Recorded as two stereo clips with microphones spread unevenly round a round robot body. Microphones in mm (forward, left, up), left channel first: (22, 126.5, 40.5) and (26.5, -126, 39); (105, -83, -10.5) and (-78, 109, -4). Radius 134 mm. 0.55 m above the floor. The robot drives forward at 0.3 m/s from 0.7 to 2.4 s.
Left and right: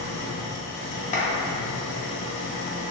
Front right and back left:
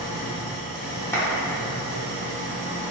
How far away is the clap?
About 0.7 m.